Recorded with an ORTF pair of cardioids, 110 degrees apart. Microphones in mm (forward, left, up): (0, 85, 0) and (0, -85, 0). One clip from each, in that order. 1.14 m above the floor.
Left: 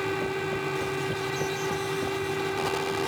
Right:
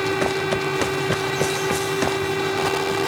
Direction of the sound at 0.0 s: 35° right.